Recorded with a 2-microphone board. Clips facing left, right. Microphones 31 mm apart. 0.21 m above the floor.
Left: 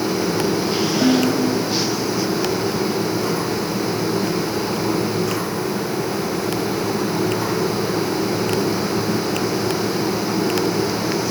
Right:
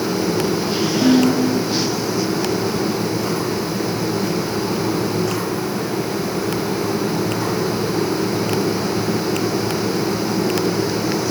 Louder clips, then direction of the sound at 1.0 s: Right 3 dB; 15° left (ahead or behind).